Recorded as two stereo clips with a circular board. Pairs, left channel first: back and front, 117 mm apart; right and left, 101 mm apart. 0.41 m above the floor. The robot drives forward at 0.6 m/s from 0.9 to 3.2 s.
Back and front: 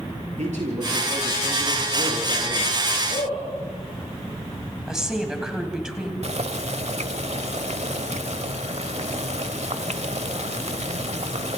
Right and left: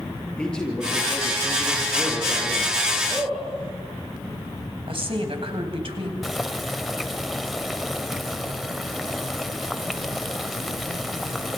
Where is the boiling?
Straight ahead, 0.9 m.